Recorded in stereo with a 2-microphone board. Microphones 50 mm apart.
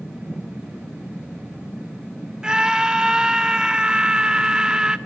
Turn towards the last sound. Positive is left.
turn(degrees=-15)  # may be behind; listen again after turning